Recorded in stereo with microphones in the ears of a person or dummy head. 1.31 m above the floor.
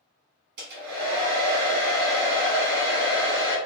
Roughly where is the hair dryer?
Right.